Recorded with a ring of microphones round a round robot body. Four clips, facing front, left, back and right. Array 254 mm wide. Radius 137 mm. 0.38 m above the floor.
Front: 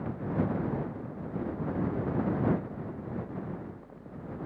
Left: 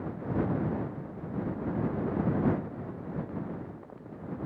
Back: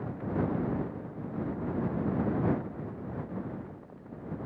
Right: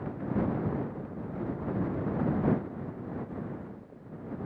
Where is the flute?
I don't hear a flute.